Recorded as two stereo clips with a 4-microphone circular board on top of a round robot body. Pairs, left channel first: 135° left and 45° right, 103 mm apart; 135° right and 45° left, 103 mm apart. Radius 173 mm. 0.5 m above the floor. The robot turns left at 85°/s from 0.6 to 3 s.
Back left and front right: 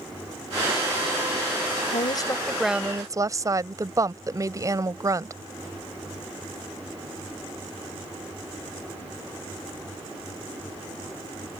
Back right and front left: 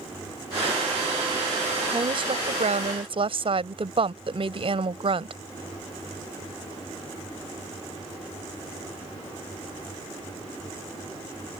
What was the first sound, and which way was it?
A woman speaking, 115° left.